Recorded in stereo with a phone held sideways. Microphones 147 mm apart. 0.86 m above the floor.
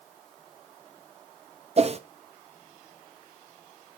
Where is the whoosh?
45° right (ahead or behind), 0.5 m.